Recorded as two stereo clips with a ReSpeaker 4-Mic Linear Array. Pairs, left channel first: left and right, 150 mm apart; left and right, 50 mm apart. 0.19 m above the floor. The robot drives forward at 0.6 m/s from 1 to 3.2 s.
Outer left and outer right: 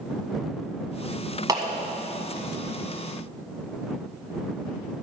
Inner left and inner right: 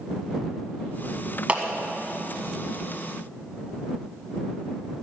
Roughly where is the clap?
Right.